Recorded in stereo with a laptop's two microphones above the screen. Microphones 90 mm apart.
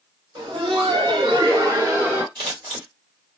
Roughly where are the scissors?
Right.